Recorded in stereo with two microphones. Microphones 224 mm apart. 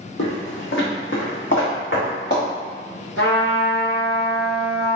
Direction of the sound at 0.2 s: 75° left (ahead or behind).